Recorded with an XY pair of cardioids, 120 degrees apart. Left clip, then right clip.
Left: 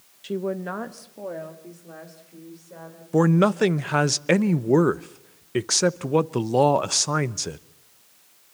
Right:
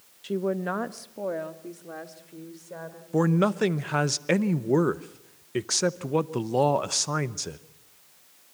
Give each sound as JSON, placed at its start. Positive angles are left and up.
{"t": 0.2, "sound": "a woman speaking", "azimuth_deg": 10, "distance_m": 0.7}
{"t": 3.1, "sound": "a man speaking", "azimuth_deg": 20, "distance_m": 0.7}